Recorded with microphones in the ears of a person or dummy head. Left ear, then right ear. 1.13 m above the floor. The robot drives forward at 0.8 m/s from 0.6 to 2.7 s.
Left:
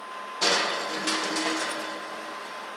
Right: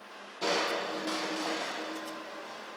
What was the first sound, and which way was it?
Crushing, 40° left (ahead or behind).